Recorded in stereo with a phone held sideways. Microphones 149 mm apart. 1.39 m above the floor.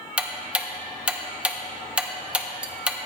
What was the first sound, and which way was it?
Ticking, 5° right (ahead or behind).